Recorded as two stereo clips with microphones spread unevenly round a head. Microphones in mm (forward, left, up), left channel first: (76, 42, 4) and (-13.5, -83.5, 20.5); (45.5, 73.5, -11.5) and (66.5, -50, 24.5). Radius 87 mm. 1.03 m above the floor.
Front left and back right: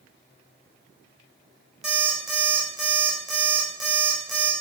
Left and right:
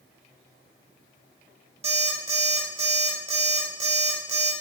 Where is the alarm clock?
40° right, 3 m.